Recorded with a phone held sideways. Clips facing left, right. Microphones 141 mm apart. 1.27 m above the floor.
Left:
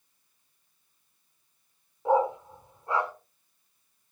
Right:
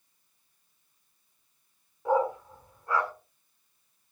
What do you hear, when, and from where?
2.0 s a dog barking: 25° left (ahead or behind), 1.1 m